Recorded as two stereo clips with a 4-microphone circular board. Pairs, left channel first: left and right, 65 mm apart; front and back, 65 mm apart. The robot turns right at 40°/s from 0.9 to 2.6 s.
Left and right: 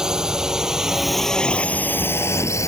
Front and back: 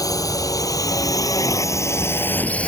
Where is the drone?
10° right; by 2.7 s 65° left.